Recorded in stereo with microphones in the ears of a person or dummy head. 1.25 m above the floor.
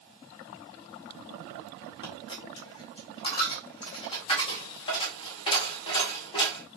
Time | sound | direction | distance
2.0 | a dropped coin | 30° left (ahead or behind) | 1.3 m